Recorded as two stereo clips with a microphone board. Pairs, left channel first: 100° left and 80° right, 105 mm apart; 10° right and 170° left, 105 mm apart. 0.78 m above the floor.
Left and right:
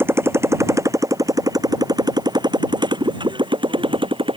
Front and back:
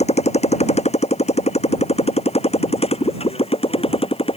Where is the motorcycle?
10° right; by 4.4 s 40° right.